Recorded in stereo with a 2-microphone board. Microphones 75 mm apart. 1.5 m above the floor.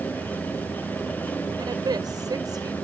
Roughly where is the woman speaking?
Right.